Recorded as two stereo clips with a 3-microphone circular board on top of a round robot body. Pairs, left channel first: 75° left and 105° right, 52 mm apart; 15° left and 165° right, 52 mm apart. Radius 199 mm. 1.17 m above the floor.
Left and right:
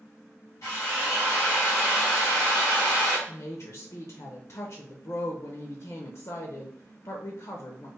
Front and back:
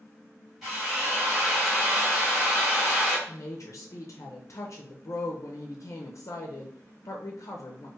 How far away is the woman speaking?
About 0.5 m.